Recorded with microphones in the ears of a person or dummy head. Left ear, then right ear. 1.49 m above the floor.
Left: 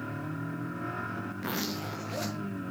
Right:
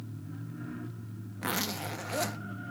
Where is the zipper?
20° right (ahead or behind), 0.8 m.